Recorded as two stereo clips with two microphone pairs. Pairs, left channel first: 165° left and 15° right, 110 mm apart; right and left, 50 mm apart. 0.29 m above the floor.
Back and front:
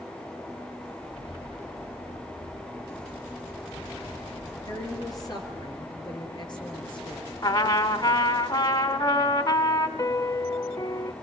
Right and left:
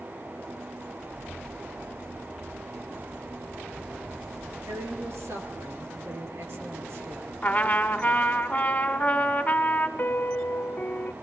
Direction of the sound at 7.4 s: 155° right.